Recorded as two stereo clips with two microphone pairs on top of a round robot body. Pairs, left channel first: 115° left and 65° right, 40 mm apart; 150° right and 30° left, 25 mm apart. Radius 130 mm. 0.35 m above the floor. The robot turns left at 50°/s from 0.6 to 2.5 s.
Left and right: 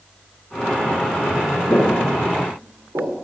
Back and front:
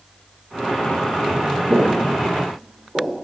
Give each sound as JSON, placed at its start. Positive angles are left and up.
{"t": 1.7, "sound": "footsteps", "azimuth_deg": 70, "distance_m": 1.4}